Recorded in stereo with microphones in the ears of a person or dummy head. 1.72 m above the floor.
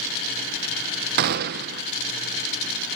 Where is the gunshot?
55° right (ahead or behind), 1.1 m.